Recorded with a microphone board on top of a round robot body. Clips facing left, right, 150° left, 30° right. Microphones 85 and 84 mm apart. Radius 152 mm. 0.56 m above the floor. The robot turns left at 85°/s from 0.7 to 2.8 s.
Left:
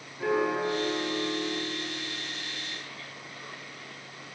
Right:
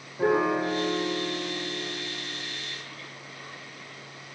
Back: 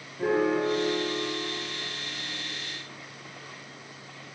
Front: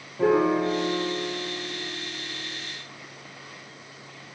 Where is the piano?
30° right, 0.5 m; by 2.6 s 170° left, 0.5 m.